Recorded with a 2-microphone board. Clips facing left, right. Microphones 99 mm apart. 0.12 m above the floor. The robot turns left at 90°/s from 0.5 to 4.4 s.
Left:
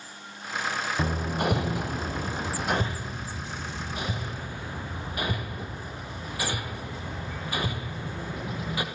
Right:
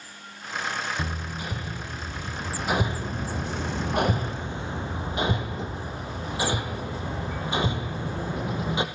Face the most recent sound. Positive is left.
turn(degrees=-25)  # may be behind; listen again after turning